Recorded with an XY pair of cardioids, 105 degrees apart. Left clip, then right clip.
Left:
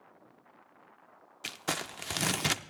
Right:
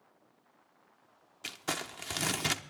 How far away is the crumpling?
About 0.7 m.